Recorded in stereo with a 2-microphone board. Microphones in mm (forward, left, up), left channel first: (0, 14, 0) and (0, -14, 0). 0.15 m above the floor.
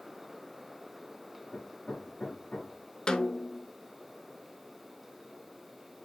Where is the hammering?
55° left (ahead or behind), 5.5 m.